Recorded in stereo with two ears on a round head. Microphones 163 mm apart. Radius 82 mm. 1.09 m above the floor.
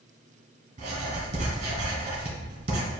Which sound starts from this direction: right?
Writing, at 0.8 s.